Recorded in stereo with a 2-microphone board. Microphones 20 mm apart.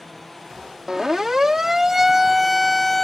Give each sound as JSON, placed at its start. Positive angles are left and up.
{"t": 0.9, "sound": "a siren", "side_deg": -35}